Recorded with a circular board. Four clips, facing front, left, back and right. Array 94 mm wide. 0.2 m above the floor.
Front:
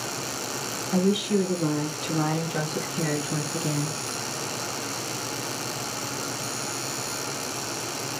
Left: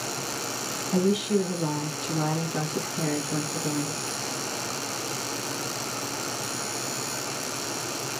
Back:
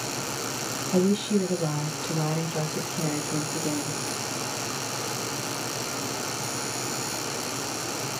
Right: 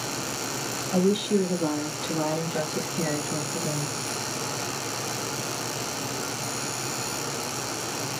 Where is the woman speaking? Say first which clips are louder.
Right 1 dB, even; 50° left, 2 m; by 4.0 s straight ahead, 2.5 m.